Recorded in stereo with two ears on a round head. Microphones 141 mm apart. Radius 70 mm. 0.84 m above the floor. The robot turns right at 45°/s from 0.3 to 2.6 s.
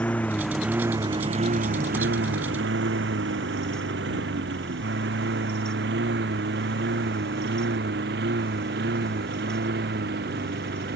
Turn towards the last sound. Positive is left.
turn(degrees=-70)  # may be behind; listen again after turning